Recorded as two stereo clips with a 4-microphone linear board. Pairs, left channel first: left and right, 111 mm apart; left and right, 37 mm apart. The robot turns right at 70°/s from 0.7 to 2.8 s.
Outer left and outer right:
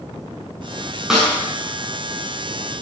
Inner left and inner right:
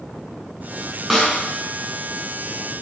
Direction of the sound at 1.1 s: 5° right (ahead or behind).